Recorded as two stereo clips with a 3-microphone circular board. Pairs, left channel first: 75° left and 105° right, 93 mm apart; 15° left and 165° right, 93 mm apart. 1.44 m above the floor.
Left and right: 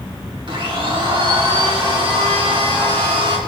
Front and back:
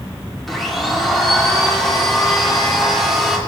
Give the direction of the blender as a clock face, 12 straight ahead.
2 o'clock.